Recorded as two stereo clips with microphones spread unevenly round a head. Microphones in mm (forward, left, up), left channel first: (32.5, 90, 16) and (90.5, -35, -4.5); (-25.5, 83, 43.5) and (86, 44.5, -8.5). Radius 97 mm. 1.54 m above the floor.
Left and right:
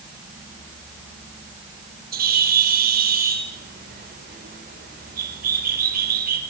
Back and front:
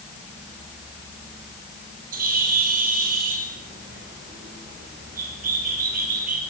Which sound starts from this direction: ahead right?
A bird, at 2.1 s.